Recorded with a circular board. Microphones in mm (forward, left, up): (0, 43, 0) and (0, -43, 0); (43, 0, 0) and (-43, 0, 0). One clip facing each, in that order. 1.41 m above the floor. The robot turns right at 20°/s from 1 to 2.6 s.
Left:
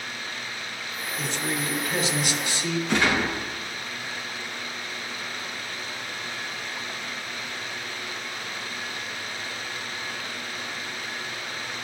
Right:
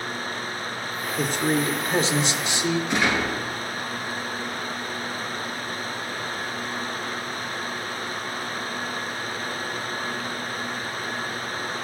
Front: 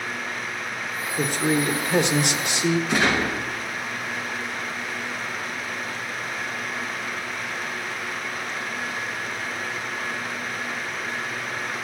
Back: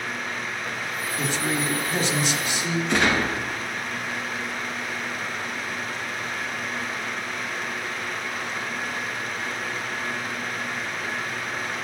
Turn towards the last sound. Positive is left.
turn(degrees=80)